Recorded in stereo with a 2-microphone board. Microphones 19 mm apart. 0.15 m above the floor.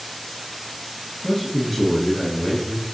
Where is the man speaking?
5° left (ahead or behind), 1.1 m.